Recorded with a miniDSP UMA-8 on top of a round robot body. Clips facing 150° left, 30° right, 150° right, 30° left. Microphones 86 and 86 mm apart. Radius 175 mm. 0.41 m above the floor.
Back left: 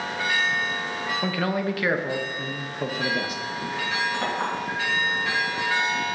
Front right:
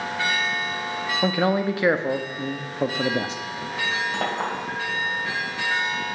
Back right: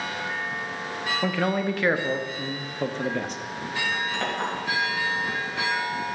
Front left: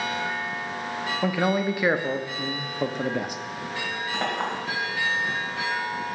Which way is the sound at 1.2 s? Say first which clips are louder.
Front right 5 dB, front left 2 dB; 30° right.